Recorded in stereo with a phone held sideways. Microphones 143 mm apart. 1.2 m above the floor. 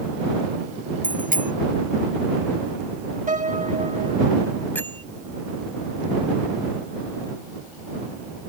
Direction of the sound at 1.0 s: 85° right.